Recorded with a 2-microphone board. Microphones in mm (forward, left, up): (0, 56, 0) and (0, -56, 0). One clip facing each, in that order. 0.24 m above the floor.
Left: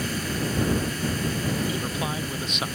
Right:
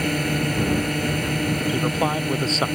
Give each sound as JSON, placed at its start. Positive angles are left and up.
{"t": 0.0, "sound": "a drone", "side_deg": -65}
{"t": 1.7, "sound": "a man speaking", "side_deg": -40}